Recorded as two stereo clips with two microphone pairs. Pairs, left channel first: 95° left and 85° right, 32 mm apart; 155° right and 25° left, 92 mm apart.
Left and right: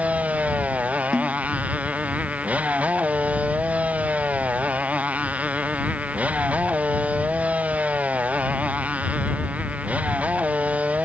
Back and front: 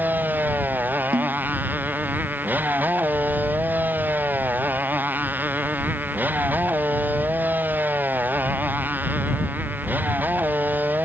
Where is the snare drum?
30° left.